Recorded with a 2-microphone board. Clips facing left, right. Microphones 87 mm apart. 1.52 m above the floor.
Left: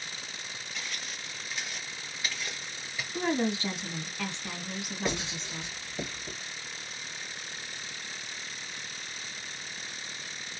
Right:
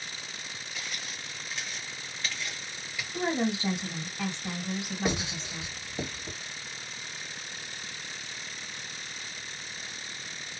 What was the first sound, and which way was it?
Footsteps, 10° right (ahead or behind).